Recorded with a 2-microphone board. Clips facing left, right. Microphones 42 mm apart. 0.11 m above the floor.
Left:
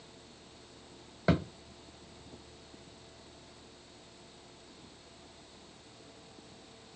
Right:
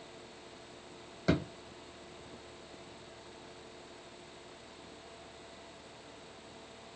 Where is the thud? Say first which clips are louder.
Left 2 dB; 20° left (ahead or behind), 1.1 m.